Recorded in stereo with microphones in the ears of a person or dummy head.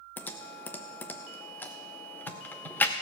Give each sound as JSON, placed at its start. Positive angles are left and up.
{"t": 0.2, "sound": "typing on a keyboard", "side_deg": 10, "distance_m": 0.6}